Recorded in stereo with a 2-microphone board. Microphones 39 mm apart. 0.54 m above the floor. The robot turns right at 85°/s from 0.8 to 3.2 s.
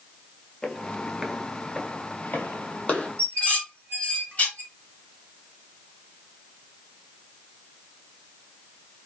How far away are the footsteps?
About 0.6 m.